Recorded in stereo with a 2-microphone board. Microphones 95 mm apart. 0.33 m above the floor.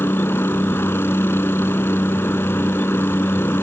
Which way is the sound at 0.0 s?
25° left (ahead or behind).